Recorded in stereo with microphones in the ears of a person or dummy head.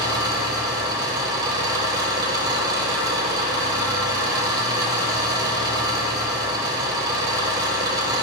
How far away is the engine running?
About 0.8 m.